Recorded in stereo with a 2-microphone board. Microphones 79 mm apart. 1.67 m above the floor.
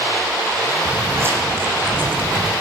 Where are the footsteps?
35° right (ahead or behind), 3.5 m; by 2.5 s 25° right (ahead or behind), 6 m.